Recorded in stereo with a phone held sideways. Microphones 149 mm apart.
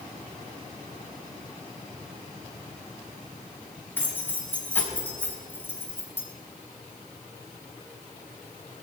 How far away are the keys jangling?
About 5 m.